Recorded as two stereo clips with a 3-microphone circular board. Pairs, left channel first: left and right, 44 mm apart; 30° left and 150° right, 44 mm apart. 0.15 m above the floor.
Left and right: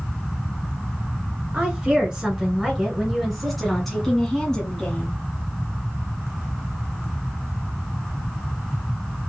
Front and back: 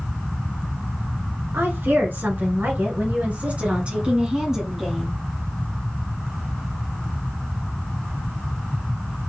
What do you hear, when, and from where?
1.5 s a woman speaking: 155° right, 2.5 m; by 5.1 s 120° left, 1.5 m